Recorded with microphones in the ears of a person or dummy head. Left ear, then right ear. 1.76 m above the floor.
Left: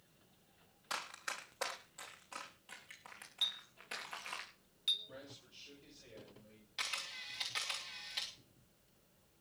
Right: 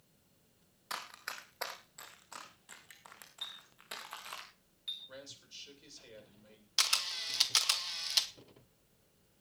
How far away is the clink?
About 3 m.